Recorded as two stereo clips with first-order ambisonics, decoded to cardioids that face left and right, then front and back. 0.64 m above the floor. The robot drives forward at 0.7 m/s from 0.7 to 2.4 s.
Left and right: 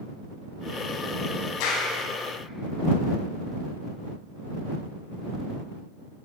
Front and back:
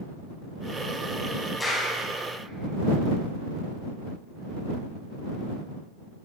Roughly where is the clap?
Left.